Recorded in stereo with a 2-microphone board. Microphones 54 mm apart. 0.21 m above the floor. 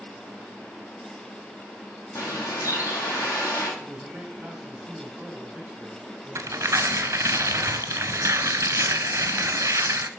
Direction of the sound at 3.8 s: 15° right (ahead or behind).